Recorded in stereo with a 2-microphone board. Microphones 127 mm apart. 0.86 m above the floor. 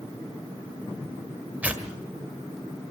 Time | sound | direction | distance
1.6 | tearing paper | 10° right (ahead or behind) | 1.8 m